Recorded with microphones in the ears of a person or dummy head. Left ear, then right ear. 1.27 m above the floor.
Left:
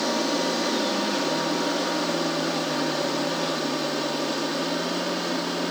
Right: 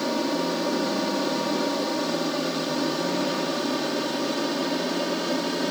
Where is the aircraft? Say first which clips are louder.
Left 1 dB; 15° left (ahead or behind); by 5.7 s 5° right (ahead or behind).